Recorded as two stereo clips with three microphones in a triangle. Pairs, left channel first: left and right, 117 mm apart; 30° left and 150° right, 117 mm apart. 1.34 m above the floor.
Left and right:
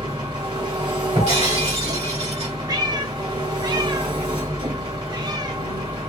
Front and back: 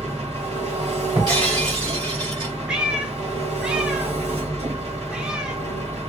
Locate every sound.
0.0 s an engine running: 130° right, 1.8 m
1.1 s breaking glass: 105° right, 2 m
2.7 s a cat meowing: 70° right, 0.8 m